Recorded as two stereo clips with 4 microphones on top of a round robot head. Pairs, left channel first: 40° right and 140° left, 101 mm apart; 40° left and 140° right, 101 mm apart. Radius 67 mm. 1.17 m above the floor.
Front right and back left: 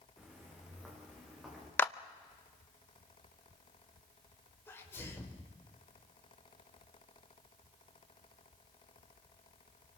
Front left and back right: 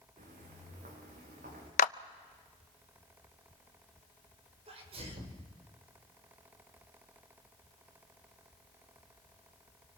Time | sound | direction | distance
0.2 | footsteps | 135° right | 5 m
1.8 | a clap | 30° left | 0.6 m
4.7 | a sneeze | 110° right | 5 m